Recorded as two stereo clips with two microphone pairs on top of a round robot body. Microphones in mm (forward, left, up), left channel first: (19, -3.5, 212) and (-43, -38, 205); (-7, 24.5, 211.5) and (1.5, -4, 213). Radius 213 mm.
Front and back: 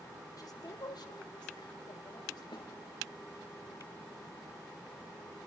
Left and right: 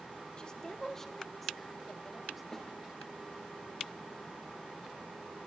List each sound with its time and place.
0.4 s a woman speaking: 55° left, 2 m; by 2.4 s 15° left, 4 m
2.5 s a snare drum: 40° left, 5.5 m